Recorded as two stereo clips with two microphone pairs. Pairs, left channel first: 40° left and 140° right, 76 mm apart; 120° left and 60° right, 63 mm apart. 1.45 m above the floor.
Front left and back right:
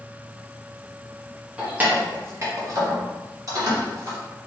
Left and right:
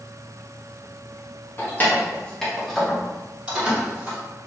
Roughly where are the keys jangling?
Behind left.